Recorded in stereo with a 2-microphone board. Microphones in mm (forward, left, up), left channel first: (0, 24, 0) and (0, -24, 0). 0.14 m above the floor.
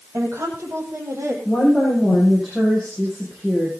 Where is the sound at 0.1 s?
60° right (ahead or behind), 6 m; by 1.4 s 55° right (ahead or behind), 5 m.